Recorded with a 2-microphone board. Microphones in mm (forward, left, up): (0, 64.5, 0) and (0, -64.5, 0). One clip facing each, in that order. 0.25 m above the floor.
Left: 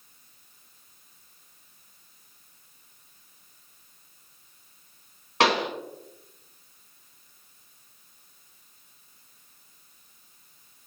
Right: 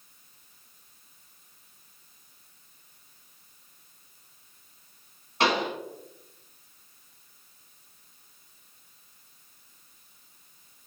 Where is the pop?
65° left (ahead or behind), 0.6 m.